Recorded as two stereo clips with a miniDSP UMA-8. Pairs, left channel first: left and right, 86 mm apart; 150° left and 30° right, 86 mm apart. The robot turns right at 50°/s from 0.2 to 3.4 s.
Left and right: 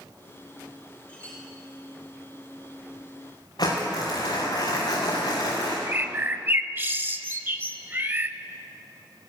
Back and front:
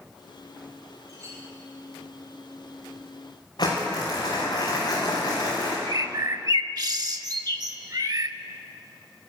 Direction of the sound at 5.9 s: 35° right.